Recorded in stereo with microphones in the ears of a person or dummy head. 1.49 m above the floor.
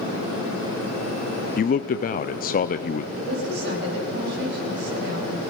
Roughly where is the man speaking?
Left.